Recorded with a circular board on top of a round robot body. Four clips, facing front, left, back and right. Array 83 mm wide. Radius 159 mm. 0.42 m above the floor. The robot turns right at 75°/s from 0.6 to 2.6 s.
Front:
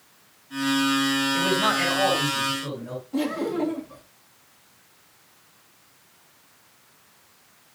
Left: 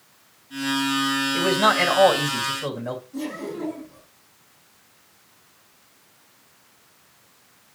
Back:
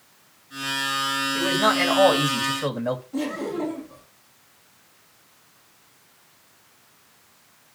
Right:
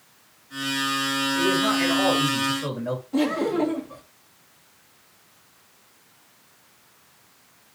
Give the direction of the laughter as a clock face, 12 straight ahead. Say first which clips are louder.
Right 8 dB, front 2 dB; 3 o'clock.